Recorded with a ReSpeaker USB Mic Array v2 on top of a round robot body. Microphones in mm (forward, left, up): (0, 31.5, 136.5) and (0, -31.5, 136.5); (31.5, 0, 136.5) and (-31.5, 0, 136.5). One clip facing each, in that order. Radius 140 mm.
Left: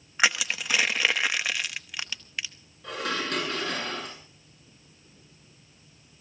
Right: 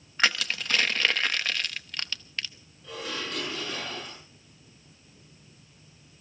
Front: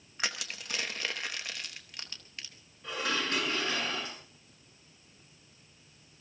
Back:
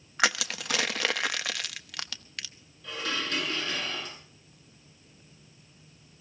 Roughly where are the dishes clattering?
Ahead left.